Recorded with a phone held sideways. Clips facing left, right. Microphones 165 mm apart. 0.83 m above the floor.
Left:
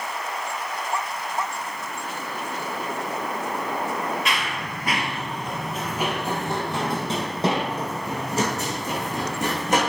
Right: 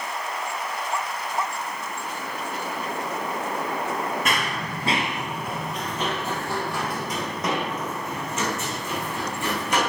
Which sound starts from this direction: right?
Running footsteps, at 4.2 s.